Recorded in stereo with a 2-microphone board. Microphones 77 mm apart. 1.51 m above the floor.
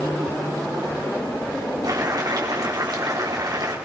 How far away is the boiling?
About 4.5 m.